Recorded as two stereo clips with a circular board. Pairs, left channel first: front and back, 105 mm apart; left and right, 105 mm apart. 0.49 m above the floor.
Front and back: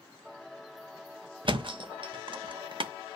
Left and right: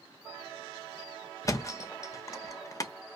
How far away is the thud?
About 0.6 m.